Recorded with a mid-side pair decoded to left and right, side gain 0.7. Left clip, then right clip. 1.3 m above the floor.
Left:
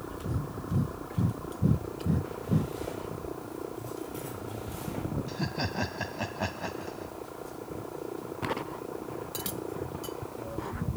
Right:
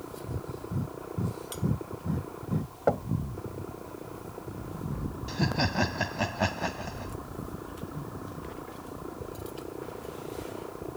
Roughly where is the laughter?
Ahead right.